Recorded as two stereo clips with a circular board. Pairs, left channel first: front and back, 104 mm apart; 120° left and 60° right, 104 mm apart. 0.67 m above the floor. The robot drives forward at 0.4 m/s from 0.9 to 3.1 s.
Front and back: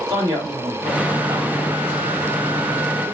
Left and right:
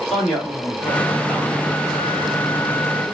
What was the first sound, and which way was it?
A man speaking, 150° right.